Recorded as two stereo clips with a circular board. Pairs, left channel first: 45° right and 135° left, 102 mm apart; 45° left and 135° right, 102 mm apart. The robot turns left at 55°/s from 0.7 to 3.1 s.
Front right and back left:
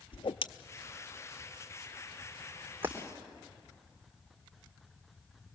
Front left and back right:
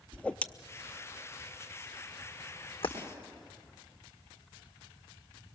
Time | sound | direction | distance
0.1 | a whoosh | 30° right | 0.6 m
2.8 | breaking glass | 65° left | 3 m